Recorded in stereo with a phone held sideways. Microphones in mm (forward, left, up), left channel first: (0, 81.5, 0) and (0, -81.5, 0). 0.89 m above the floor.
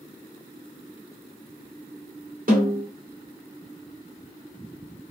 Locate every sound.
2.5 s a snare drum: 55° right (ahead or behind), 2 m